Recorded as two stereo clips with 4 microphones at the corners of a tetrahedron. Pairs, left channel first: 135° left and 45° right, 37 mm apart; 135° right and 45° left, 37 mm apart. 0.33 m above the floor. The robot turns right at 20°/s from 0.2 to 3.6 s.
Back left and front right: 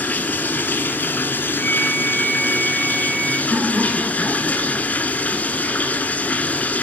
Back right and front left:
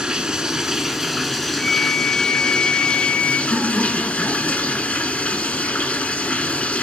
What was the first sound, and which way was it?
Running water, 110° left.